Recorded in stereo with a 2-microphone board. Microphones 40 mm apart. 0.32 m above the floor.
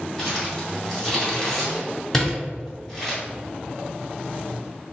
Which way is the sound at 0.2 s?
Centre (ahead or behind).